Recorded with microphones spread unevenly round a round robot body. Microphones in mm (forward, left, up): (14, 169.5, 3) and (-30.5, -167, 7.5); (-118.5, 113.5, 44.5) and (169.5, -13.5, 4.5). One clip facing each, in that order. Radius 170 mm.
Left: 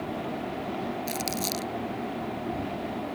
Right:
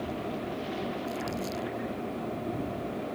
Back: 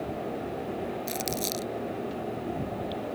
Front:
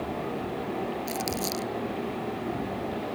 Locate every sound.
1.1 s crumpling: 90° left